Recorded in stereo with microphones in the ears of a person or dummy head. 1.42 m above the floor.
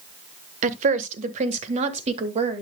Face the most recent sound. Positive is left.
turn(degrees=-35)  # may be behind; listen again after turning